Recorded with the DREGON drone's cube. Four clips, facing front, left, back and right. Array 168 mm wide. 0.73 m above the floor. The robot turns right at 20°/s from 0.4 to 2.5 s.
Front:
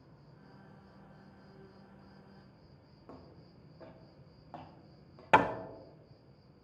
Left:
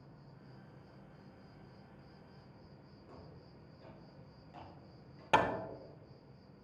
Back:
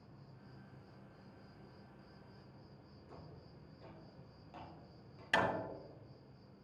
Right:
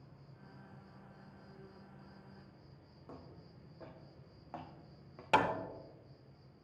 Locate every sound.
0.0 s an insect: 55° left, 2.5 m; by 6.6 s 100° left, 2.5 m
3.1 s footsteps: 30° right, 3 m; by 5.2 s 65° right, 2 m
5.3 s hammering: 5° left, 0.7 m